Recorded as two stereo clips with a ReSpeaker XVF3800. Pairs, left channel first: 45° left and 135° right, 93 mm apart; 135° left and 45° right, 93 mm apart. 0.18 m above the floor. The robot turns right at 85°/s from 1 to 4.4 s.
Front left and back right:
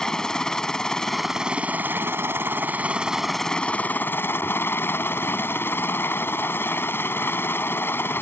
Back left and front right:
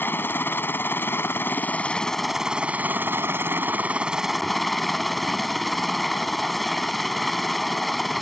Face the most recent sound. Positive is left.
turn(degrees=50)